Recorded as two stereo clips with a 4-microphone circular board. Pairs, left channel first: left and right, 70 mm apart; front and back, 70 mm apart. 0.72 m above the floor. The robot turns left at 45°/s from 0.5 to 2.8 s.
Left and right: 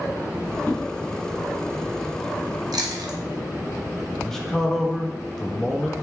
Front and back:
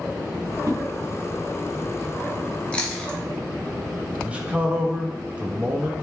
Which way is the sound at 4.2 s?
160° left.